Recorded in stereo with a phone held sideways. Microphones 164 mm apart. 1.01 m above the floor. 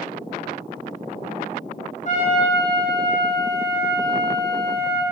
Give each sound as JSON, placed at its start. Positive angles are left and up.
{"t": 2.0, "sound": "a trumpet", "side_deg": 50, "distance_m": 1.7}